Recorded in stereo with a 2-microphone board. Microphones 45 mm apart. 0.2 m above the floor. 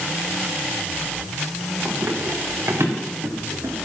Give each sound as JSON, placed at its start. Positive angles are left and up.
{"t": 1.9, "sound": "running footsteps", "side_deg": -55, "distance_m": 4.0}